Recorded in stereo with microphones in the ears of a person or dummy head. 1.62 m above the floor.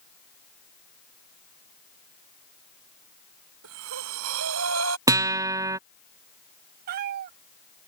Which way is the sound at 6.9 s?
45° right (ahead or behind).